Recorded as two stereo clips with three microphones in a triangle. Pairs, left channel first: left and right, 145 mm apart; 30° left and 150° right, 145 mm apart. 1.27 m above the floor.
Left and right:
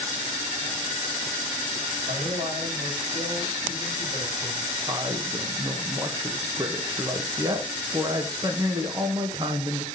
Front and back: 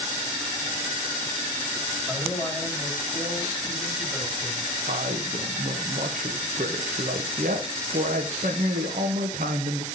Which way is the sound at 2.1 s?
60° right.